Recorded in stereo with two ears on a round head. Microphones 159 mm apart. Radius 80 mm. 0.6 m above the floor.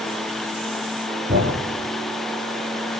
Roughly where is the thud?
Right.